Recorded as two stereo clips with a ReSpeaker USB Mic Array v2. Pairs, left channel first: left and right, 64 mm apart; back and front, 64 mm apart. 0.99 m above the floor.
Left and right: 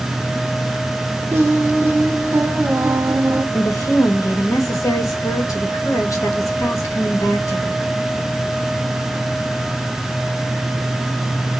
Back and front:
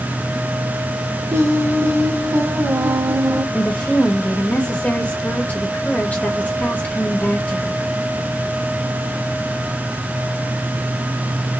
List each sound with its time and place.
1.3 s singing: 40° right, 1.2 m
3.5 s a woman speaking: 115° left, 1.5 m